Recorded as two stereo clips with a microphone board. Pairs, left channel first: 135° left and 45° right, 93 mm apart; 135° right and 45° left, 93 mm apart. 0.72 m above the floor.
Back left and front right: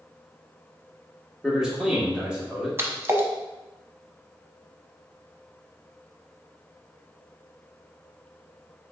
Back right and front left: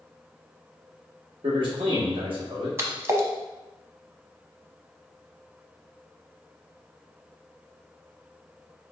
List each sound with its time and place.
1.4 s a man speaking: 35° left, 1.4 m
2.8 s a splash: straight ahead, 0.7 m